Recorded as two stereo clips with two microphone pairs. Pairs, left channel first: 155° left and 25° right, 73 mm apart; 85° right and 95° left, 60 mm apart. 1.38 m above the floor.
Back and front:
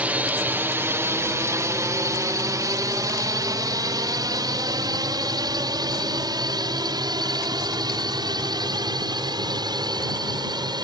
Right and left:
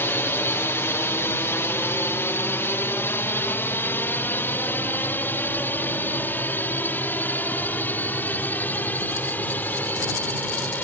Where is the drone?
80° right; by 10.8 s 20° right.